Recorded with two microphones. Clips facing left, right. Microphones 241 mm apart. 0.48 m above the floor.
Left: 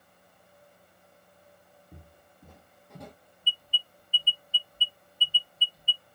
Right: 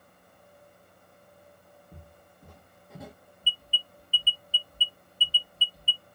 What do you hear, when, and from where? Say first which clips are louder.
1.9 s footsteps: left 1 dB; 10° left (ahead or behind), 1.0 m; by 3.1 s 10° right (ahead or behind), 0.5 m
3.4 s an alarm: right 1 dB; 30° right (ahead or behind), 0.7 m